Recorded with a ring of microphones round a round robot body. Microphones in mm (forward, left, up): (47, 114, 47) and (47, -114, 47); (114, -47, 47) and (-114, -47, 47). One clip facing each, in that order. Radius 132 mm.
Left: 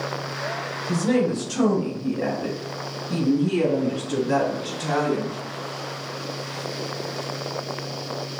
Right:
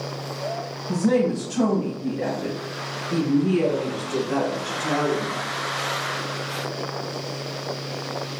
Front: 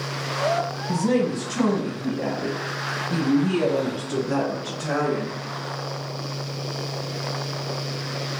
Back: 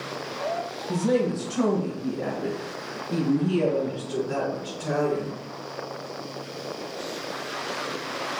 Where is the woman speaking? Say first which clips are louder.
Right 1 dB, front 1 dB; 50° left, 1.6 m; by 5.3 s 65° left, 4 m.